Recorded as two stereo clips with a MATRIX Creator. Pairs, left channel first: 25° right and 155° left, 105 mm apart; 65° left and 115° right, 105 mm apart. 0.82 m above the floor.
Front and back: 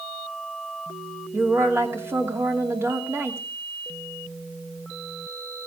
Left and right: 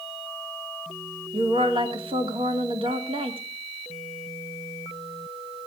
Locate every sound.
1.3 s a woman speaking: 140° right, 2.5 m